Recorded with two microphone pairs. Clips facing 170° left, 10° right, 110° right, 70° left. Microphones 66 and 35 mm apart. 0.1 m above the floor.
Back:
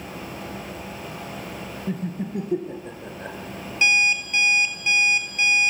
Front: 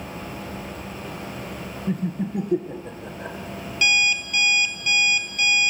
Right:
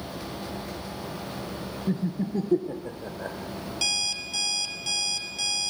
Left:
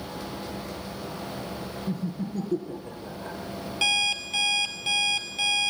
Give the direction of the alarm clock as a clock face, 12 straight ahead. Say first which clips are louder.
Back 1 dB, left 6 dB; 8 o'clock.